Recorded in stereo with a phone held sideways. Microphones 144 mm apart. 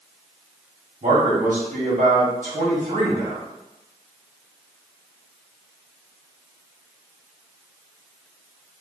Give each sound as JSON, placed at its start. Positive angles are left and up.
{"t": 1.0, "sound": "a man speaking", "side_deg": -65, "distance_m": 1.3}